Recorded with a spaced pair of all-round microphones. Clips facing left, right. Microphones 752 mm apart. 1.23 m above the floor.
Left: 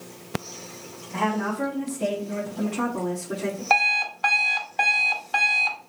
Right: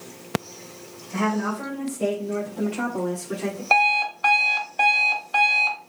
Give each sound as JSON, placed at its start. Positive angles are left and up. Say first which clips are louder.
{"t": 1.1, "sound": "a woman speaking", "louder": "right 2 dB", "side_deg": -45, "distance_m": 1.7}
{"t": 3.7, "sound": "an alarm clock", "louder": "right 3 dB", "side_deg": 35, "distance_m": 0.8}